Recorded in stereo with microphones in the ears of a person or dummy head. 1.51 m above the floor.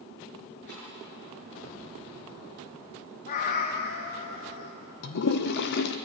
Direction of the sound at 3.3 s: 35° left (ahead or behind).